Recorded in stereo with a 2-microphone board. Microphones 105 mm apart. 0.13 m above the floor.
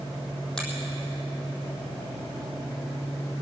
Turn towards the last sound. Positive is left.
turn(degrees=5)  # may be behind; listen again after turning